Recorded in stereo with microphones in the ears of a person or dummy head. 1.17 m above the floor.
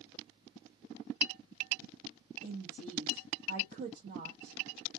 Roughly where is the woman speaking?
Right.